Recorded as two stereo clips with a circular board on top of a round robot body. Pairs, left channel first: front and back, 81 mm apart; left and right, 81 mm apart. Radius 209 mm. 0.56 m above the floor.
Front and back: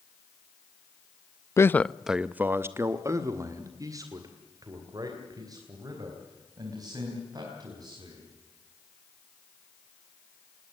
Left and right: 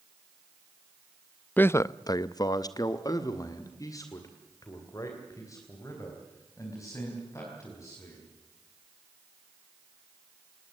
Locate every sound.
1.6 s a man speaking: 30° left, 0.7 m; by 8.3 s 140° left, 5.5 m